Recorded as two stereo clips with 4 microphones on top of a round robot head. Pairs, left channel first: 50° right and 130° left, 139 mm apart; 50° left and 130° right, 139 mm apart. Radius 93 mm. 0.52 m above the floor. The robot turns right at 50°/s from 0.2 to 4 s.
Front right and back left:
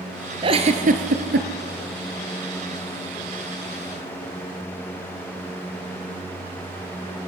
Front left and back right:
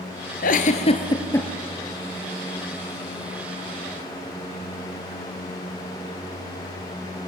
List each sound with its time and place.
0.4 s a giggle: 75° left, 1.8 m; by 1.5 s 125° left, 1.8 m